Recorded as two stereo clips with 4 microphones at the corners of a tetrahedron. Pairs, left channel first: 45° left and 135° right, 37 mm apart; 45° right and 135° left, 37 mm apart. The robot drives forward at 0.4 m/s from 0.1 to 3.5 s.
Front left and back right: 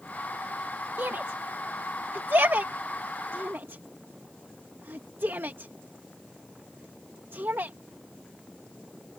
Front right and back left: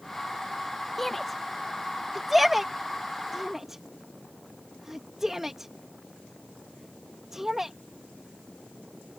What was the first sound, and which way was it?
A shout, 130° right.